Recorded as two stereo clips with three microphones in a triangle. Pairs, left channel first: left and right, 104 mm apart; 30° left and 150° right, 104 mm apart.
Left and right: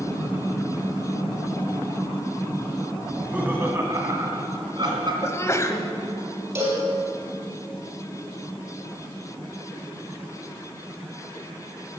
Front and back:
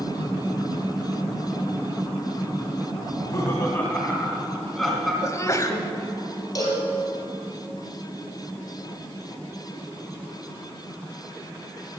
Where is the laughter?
10° right, 1.9 m; by 5.1 s 60° right, 2.5 m.